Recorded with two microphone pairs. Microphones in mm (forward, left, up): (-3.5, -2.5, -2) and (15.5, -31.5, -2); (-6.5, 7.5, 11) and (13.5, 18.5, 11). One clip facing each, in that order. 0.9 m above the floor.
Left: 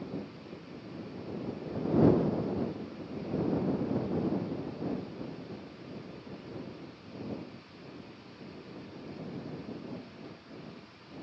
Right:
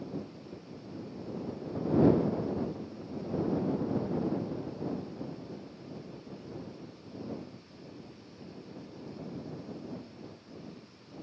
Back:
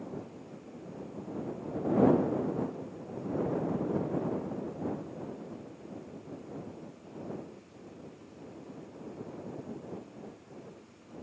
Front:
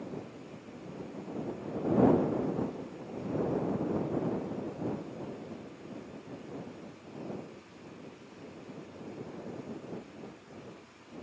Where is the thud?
I don't hear a thud.